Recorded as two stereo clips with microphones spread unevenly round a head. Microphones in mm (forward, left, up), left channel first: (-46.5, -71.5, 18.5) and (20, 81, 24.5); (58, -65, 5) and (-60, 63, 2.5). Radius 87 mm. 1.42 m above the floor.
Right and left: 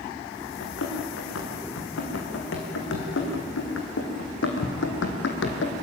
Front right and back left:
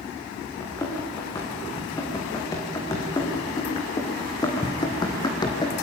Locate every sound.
0.6 s running footsteps: 120° right, 6 m; by 5.7 s 110° right, 3 m